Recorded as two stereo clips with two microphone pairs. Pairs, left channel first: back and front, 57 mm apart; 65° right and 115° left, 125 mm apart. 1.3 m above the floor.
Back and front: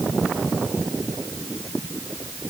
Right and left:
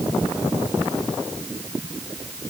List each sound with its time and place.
Only background noise.